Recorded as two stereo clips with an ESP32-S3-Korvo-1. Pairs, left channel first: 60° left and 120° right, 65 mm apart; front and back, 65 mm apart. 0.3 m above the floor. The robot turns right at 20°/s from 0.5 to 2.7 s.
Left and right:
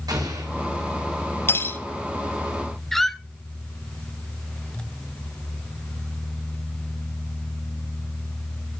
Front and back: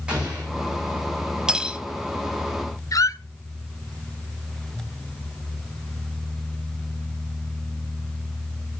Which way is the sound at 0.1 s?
105° right.